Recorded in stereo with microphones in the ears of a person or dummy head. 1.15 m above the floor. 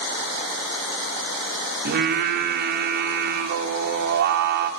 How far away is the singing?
About 1.7 m.